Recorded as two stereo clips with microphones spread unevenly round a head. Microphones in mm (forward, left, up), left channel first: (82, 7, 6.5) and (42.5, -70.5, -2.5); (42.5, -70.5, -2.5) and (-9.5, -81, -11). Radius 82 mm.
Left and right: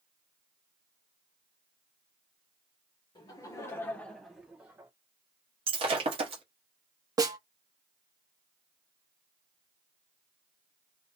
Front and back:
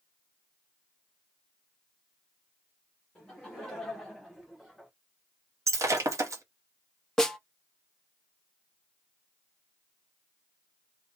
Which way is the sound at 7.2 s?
65° right.